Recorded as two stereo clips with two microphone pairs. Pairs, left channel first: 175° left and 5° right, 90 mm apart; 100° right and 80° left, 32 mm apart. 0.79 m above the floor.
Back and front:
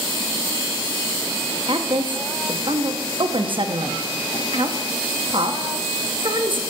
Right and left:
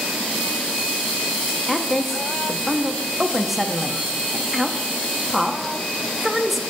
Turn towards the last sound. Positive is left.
turn(degrees=-5)